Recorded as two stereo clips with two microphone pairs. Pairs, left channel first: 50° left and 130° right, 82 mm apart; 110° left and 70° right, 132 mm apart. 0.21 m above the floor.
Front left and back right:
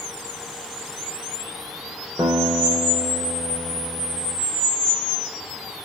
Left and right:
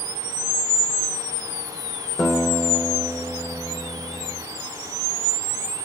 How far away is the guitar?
About 3.5 m.